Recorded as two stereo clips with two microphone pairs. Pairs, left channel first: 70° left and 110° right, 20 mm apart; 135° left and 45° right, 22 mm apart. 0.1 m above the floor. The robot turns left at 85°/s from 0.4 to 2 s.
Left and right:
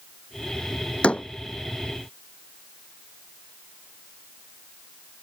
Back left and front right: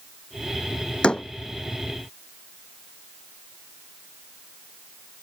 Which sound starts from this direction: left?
A door slam, at 1.0 s.